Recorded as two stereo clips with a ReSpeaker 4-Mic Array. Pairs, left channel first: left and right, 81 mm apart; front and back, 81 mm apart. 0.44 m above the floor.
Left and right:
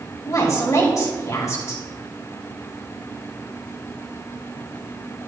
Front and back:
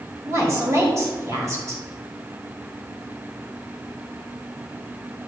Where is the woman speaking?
135° left, 2 m.